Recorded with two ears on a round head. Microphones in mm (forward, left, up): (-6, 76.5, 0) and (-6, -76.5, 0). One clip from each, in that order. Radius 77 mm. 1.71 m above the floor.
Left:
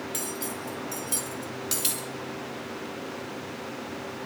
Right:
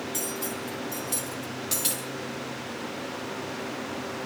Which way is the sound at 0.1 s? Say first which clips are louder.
Right 2 dB; 15° left (ahead or behind).